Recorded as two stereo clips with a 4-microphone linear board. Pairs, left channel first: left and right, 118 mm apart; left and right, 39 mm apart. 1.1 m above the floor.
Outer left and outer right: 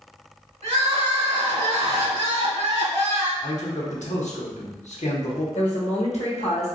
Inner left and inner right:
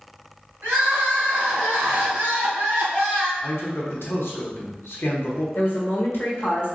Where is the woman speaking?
70° left (ahead or behind), 1.2 m.